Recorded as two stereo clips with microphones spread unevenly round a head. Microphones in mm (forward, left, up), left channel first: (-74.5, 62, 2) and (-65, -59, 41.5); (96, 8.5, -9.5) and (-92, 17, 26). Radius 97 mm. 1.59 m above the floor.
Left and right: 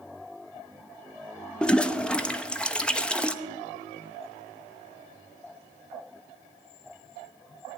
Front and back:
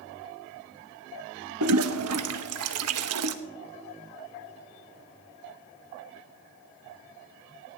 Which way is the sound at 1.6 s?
Straight behind.